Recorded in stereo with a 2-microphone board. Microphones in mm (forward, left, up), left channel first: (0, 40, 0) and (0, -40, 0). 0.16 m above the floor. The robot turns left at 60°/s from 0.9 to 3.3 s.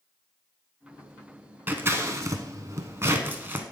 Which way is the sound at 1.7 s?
25° right (ahead or behind).